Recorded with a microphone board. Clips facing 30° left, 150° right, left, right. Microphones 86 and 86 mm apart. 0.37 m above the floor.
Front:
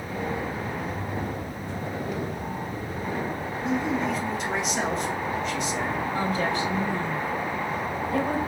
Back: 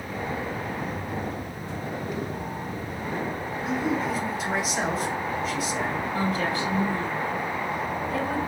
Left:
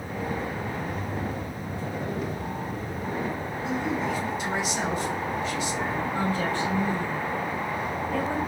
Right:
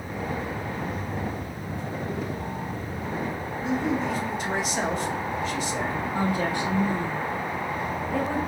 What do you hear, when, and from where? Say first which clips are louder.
3.6 s a man speaking: front 1 dB, right 2 dB; 65° right, 1.4 m
6.1 s a woman speaking: even, right 2 dB; 20° right, 2.0 m